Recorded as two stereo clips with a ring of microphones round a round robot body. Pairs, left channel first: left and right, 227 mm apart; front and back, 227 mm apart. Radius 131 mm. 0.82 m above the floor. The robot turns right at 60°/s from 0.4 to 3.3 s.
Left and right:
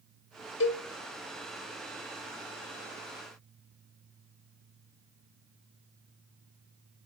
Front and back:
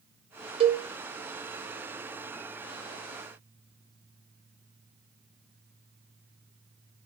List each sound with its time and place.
0.6 s a cowbell: 120° left, 0.7 m; by 0.8 s 135° left, 0.7 m